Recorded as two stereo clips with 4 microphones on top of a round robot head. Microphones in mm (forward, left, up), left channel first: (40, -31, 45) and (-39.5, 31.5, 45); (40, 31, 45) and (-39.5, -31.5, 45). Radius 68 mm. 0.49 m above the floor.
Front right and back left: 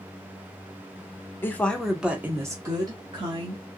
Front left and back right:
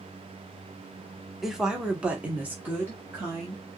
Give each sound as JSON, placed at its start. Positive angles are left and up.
{"t": 1.4, "sound": "a woman speaking", "azimuth_deg": -60, "distance_m": 0.9}